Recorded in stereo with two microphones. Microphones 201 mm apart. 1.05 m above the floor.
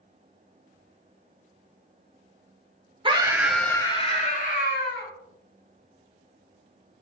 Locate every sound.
3.0 s a scream: 25° right (ahead or behind), 0.6 m; by 5.1 s 55° left (ahead or behind), 1.1 m